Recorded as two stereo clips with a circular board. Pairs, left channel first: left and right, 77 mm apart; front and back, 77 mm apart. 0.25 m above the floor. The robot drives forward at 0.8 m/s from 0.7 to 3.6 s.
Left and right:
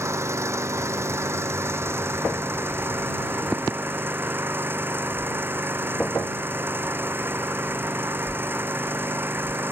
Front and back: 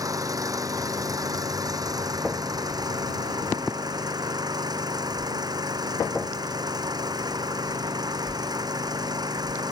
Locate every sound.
0.0 s an engine running: 140° right; by 9.7 s 150° right